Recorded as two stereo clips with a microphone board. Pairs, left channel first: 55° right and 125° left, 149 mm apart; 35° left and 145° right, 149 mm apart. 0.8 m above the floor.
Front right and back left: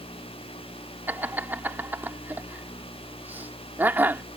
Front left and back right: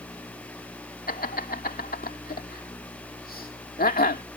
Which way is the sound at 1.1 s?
45° left.